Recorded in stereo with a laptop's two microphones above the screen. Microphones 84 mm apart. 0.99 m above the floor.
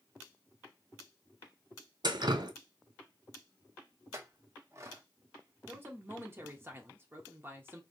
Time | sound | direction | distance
2.0 | dripping | 60° right (ahead or behind) | 0.5 m
4.1 | a clink | 35° right (ahead or behind) | 0.7 m
5.7 | a man speaking | 30° right (ahead or behind) | 0.8 m